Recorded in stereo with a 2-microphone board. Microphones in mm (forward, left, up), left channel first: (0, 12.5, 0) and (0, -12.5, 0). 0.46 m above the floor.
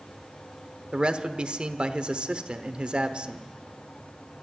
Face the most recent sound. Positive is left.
turn(degrees=-40)  # may be behind; listen again after turning